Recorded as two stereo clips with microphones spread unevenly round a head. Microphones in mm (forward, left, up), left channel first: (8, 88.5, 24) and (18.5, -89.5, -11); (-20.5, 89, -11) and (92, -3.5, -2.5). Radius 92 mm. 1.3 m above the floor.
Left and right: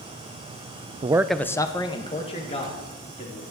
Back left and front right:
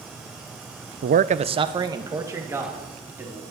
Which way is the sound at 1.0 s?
40° right.